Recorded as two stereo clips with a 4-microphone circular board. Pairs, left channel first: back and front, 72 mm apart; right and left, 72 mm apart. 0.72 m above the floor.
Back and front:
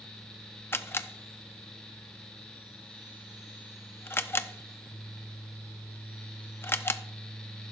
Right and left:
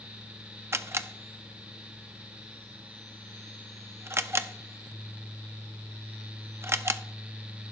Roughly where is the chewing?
No chewing in this recording.